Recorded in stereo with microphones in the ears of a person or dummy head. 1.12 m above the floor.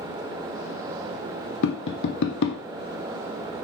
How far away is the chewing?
I don't hear chewing.